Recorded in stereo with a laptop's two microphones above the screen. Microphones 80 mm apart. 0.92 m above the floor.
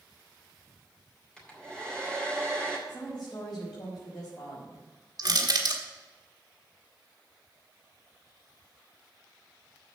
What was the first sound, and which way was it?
A hair dryer, 10° left (ahead or behind).